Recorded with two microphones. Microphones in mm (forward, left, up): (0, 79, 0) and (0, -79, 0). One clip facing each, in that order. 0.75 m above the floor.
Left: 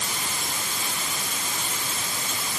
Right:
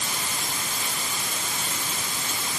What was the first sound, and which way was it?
Only background noise.